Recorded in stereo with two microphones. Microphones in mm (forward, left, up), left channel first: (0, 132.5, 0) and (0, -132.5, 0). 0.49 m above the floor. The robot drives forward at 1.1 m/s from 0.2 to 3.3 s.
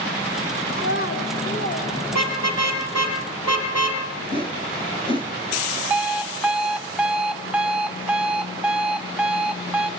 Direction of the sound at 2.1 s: 85° left.